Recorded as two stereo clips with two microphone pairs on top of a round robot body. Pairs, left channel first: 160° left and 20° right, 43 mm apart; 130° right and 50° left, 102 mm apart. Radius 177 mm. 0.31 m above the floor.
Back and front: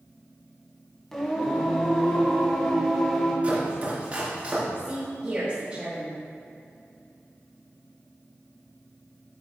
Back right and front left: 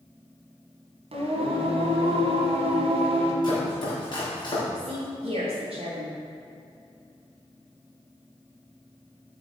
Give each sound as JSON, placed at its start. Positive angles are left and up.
{"t": 1.1, "sound": "singing", "azimuth_deg": 80, "distance_m": 1.6}
{"t": 3.4, "sound": "chopping", "azimuth_deg": -80, "distance_m": 3.0}
{"t": 4.8, "sound": "a woman speaking", "azimuth_deg": 45, "distance_m": 2.0}